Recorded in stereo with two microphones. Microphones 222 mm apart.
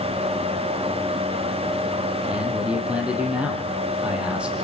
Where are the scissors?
No scissors in this recording.